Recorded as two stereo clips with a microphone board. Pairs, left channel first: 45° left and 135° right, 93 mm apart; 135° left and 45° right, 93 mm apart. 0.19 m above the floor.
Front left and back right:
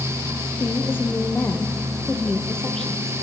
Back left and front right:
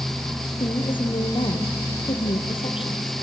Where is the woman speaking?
110° left, 4 m; by 3.1 s 135° left, 4.5 m.